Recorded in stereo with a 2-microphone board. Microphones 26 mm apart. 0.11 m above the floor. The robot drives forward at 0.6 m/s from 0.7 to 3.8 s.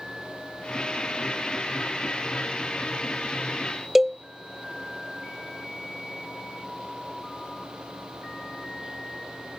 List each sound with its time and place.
4.0 s a cowbell: 15° right (ahead or behind)